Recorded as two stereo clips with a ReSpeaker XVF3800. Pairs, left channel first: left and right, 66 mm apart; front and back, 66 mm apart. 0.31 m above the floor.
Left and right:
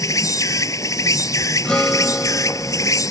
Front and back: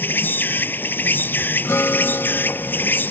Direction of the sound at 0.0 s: 55° left.